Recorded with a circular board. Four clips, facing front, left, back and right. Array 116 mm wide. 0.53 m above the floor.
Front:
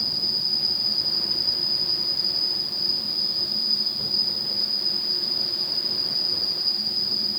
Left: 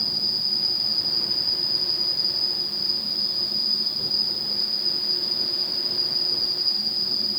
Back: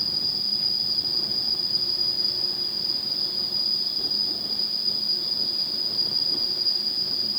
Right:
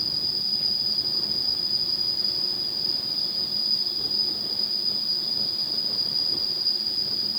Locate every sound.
0.0 s an insect: 130° right, 2.5 m